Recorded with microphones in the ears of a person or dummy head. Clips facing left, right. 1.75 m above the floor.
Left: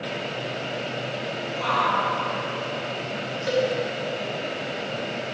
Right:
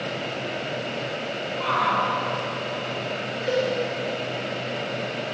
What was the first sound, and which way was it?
A shout, 60° left (ahead or behind).